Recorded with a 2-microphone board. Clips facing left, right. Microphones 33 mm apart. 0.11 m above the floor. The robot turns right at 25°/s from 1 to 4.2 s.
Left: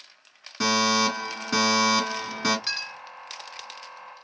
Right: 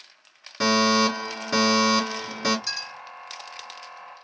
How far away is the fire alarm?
About 2 m.